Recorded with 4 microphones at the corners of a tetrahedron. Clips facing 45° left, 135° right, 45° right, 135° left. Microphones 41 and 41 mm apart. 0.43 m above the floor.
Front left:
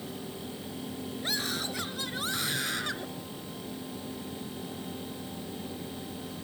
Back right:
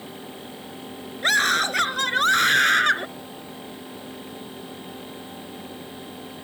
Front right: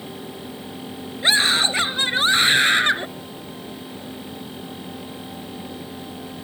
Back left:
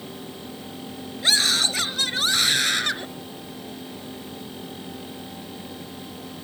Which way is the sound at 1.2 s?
110° right.